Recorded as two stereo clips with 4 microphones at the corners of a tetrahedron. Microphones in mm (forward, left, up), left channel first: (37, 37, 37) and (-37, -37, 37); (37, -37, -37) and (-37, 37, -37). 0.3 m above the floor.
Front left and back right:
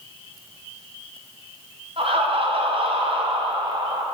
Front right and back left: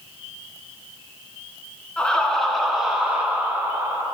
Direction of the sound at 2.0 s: 125° right.